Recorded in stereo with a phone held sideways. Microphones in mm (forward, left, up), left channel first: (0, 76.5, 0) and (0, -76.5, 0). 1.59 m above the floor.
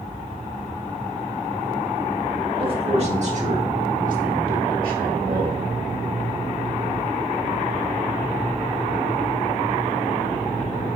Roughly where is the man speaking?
Right.